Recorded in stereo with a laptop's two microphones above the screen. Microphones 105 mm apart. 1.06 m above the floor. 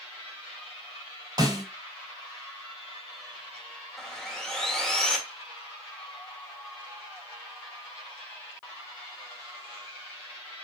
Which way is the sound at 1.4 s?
40° right (ahead or behind).